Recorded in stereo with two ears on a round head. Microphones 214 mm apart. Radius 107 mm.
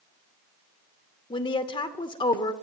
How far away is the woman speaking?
About 0.9 m.